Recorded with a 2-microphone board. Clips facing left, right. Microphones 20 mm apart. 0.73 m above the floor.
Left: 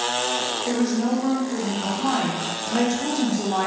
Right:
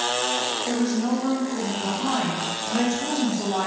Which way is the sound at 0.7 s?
30° left (ahead or behind).